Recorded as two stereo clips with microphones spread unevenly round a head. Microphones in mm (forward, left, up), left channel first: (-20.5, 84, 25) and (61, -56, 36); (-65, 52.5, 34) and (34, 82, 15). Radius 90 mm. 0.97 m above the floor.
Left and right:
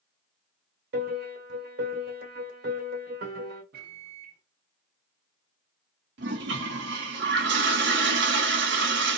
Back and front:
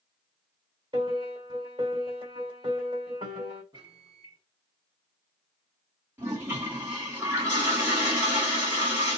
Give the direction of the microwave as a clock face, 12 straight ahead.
1 o'clock.